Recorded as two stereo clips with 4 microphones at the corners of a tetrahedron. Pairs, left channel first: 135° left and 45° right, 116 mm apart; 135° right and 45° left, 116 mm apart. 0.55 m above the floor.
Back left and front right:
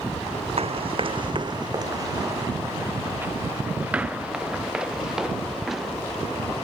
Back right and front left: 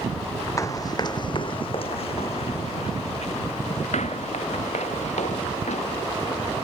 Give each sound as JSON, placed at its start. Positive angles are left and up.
{"t": 0.6, "sound": "running footsteps", "azimuth_deg": -75}